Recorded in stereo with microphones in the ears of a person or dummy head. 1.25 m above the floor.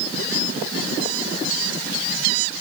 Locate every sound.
Only background noise.